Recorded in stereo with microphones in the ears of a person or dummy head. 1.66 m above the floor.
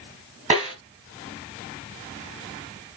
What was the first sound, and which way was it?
A snare drum, 30° right (ahead or behind).